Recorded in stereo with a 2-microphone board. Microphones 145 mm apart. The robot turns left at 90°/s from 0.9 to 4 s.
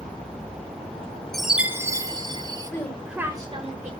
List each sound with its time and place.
1.3 s a chime: centre (ahead or behind), 0.5 m; by 2.7 s 25° right (ahead or behind), 0.5 m
2.7 s a woman speaking: 30° left, 2 m; by 3.9 s 80° right, 2 m